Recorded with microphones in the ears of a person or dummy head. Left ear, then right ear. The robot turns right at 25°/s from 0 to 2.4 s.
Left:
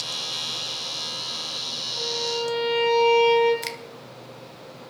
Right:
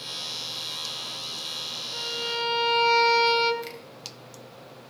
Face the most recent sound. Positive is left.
turn(degrees=25)  # may be behind; listen again after turning